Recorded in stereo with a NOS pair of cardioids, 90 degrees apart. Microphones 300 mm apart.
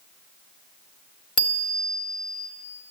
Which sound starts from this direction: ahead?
A bicycle bell, at 1.4 s.